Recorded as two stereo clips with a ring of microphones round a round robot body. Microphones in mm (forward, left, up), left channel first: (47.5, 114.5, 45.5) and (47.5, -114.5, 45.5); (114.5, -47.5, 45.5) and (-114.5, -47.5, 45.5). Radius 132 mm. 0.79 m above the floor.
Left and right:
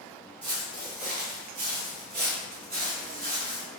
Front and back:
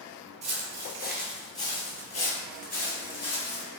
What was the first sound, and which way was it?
Footsteps, 135° right.